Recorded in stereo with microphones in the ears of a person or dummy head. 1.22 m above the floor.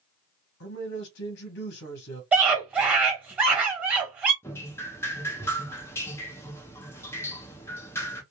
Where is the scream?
5° right (ahead or behind), 1.2 m.